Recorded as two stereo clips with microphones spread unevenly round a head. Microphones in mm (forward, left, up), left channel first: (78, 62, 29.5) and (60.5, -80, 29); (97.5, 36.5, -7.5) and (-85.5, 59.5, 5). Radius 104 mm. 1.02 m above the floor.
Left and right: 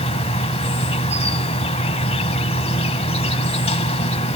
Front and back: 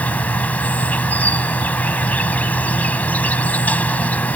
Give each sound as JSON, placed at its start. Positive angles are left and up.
{"t": 0.0, "sound": "an insect", "azimuth_deg": 75}